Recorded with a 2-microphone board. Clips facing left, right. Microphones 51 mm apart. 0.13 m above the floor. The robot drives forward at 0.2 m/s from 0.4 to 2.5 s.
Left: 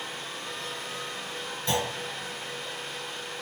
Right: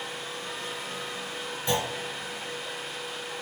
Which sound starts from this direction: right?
A clunk, at 1.7 s.